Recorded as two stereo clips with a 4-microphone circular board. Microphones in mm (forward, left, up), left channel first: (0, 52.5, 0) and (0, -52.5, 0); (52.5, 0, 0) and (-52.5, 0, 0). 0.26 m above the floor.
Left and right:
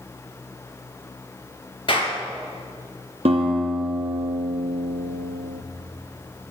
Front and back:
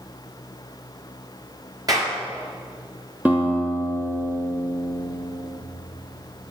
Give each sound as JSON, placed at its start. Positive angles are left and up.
{"t": 1.9, "sound": "a clap", "azimuth_deg": 125, "distance_m": 3.0}
{"t": 3.2, "sound": "a guitar", "azimuth_deg": -105, "distance_m": 1.8}